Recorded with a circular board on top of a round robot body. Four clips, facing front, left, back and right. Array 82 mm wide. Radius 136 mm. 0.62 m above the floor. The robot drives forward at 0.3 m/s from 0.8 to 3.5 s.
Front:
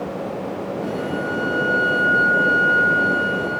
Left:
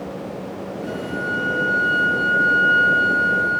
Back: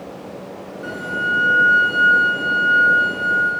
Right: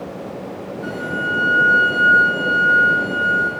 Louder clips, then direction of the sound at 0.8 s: Right 3 dB, back 4 dB; 130° right.